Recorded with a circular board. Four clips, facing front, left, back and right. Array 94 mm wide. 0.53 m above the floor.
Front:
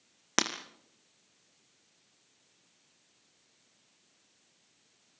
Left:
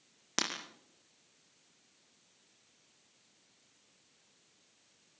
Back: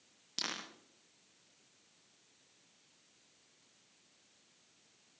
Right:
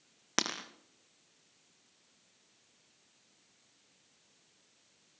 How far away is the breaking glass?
About 3.5 m.